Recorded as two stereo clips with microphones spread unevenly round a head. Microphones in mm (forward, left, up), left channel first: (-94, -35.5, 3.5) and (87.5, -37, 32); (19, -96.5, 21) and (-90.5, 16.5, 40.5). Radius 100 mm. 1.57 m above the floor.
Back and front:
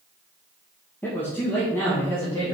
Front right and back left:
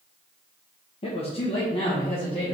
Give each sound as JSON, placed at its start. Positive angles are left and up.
{"t": 1.0, "sound": "a man speaking", "azimuth_deg": -100, "distance_m": 1.1}